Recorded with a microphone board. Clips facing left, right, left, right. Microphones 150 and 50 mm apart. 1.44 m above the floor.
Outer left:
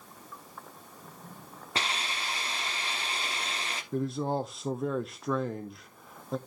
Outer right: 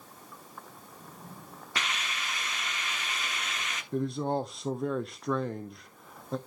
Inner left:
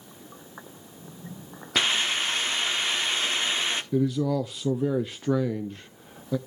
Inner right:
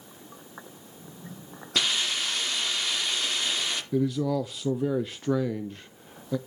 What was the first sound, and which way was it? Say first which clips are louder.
A hiss: outer left 2 dB, inner left 3 dB; 30° left (ahead or behind).